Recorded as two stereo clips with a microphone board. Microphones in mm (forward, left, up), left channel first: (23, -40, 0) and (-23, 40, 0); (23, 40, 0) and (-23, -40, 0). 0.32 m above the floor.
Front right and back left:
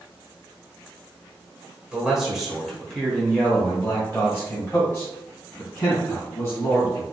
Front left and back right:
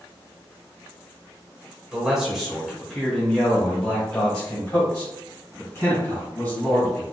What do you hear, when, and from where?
1.9 s a man speaking: straight behind, 1.4 m; by 7.0 s 5° right, 3 m